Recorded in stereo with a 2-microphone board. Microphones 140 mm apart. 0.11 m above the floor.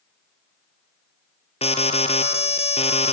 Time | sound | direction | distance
1.6 | an alarm | 45° left (ahead or behind) | 1.9 m